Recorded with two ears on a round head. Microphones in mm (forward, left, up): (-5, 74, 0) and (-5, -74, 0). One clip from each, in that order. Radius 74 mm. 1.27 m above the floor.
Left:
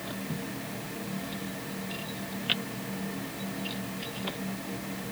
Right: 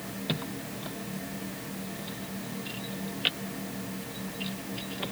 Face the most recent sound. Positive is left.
No sound to turn to.